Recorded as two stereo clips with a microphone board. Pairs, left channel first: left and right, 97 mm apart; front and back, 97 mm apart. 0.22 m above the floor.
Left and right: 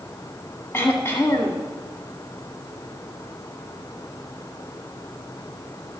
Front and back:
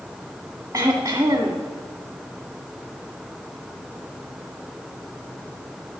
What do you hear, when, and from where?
0.7 s throat clearing: 145° left, 1.4 m